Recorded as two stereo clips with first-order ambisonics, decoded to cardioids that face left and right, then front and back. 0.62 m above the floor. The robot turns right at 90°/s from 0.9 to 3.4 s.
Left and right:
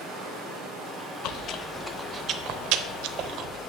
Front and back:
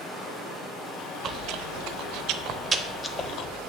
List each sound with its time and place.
0.0 s running water: 65° right, 3.5 m; by 3.7 s 160° left, 3.5 m
1.2 s chewing: 120° left, 0.6 m; by 3.6 s 45° right, 0.6 m